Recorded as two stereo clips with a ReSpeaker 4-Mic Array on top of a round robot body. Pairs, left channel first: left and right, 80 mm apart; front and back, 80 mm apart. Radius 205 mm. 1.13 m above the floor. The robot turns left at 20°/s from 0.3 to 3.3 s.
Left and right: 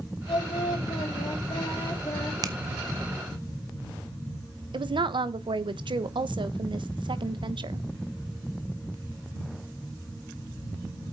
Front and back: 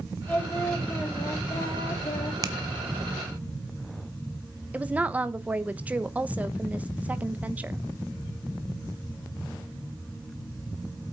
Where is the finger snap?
130° right, 0.6 m; by 2.5 s 135° right, 0.6 m.